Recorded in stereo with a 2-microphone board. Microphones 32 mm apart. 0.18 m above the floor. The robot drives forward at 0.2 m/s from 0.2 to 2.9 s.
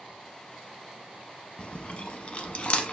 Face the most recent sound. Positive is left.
turn(degrees=40)  # may be behind; listen again after turning